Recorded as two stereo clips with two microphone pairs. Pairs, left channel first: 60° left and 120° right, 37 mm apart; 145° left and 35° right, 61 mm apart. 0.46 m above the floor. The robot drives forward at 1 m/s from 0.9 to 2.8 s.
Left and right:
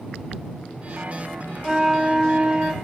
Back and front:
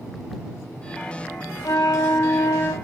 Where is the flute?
155° left, 1.1 m; by 2.7 s 170° left, 2 m.